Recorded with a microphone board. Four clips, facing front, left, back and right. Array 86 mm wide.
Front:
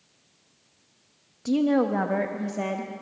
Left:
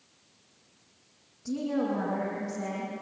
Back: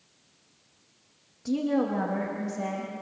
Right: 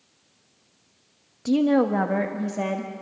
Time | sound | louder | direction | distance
1.4 | a woman speaking | right 10 dB, front 4 dB | 65° right | 1.0 m